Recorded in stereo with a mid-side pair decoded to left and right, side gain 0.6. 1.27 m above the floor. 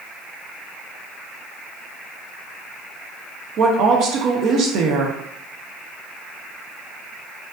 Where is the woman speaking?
55° right, 0.8 m.